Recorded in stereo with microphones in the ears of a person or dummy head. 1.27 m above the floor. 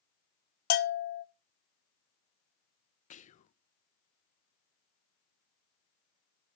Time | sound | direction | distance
0.7 | a bell | 50° left (ahead or behind) | 0.9 m
3.1 | whispering | 45° left (ahead or behind) | 0.7 m